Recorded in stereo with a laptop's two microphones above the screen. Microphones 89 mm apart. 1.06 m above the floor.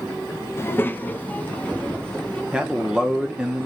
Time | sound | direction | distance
0.6 | a child speaking | 30° left (ahead or behind) | 0.6 m
2.5 | a man speaking | 10° right (ahead or behind) | 0.6 m